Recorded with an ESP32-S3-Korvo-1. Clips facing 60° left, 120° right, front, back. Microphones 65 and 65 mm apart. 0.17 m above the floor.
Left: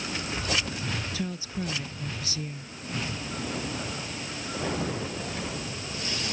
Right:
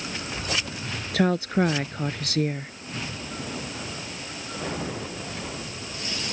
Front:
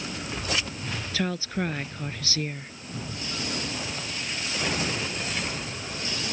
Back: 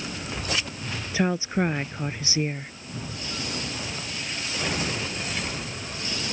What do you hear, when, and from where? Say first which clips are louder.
1.1 s a woman speaking: right 11 dB, back 5 dB; 115° right